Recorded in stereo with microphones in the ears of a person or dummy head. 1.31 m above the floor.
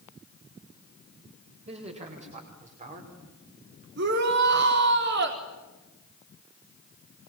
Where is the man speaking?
40° right (ahead or behind), 6 m; by 3.9 s 50° right (ahead or behind), 4.5 m.